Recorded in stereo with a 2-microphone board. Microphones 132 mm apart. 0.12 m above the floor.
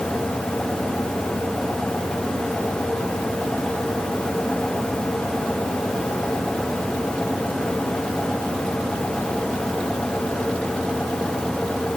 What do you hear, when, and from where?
Only background noise.